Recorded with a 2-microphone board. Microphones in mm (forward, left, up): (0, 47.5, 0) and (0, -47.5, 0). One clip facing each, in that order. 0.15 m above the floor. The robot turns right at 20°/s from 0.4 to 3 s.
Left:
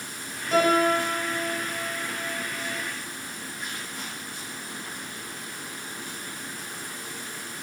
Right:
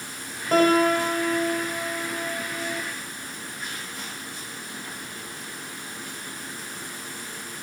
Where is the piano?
135° right, 8 m; by 2.8 s 90° right, 8 m.